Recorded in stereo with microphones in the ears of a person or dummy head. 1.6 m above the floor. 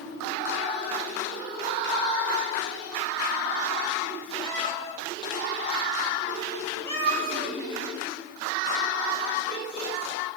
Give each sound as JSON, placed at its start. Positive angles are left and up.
{"t": 4.4, "sound": "a cat meowing", "side_deg": 30, "distance_m": 4.5}